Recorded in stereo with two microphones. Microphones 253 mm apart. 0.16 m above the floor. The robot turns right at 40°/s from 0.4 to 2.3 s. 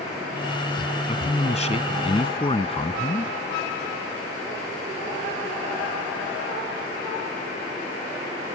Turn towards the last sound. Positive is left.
turn(degrees=20)  # may be behind; listen again after turning